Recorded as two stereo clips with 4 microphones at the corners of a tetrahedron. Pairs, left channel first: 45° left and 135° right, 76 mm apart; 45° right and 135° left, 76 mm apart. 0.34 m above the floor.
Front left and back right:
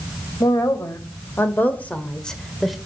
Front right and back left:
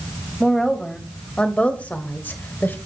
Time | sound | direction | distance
0.4 | a woman speaking | 40° left | 1.8 m